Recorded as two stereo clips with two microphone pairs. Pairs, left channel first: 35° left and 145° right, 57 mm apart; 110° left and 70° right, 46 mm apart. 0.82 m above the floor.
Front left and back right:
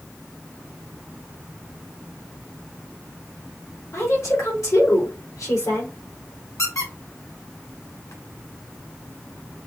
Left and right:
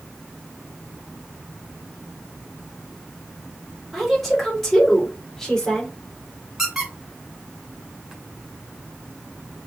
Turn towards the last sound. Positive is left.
turn(degrees=15)